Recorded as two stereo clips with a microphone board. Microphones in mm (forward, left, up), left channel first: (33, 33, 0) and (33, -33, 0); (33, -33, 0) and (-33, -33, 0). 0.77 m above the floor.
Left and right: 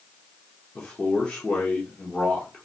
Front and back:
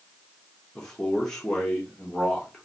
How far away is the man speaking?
About 0.7 m.